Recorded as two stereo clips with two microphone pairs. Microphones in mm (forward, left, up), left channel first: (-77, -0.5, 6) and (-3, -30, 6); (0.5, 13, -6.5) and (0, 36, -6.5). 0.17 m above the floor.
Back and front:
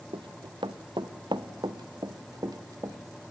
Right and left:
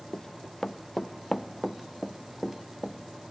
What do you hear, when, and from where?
0.1 s running footsteps: 30° right, 1.3 m; by 3.0 s 20° left, 2 m